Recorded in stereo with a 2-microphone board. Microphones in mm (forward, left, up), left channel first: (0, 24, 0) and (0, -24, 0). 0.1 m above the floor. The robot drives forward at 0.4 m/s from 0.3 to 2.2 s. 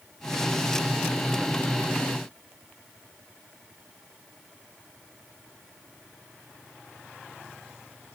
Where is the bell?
I don't hear a bell.